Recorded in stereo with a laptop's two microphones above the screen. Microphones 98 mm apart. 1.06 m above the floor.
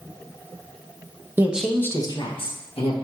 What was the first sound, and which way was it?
A woman speaking, 20° right (ahead or behind).